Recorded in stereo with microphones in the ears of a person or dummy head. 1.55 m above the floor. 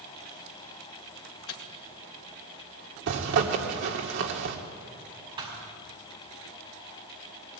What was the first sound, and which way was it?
A microwave, 75° left (ahead or behind).